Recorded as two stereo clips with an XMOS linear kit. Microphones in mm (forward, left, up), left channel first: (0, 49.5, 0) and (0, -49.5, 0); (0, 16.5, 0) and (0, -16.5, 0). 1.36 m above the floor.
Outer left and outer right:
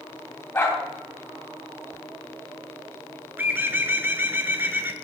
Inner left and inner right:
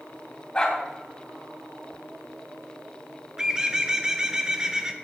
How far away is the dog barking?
About 3 m.